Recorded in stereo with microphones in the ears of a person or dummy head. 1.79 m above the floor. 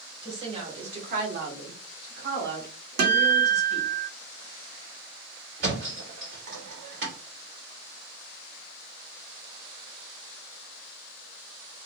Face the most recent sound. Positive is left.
turn(degrees=-65)  # may be behind; listen again after turning